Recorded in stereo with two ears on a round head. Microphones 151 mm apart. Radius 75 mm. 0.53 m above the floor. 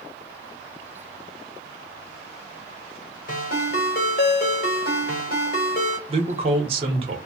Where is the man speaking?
35° right (ahead or behind), 1.0 m.